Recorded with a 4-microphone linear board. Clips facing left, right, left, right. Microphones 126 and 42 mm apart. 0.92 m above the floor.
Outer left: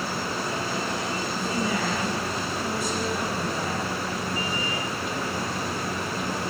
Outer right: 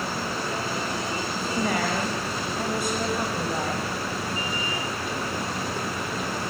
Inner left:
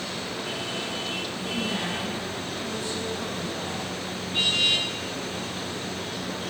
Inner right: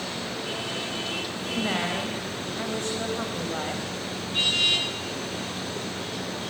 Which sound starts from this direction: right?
A woman speaking, at 1.3 s.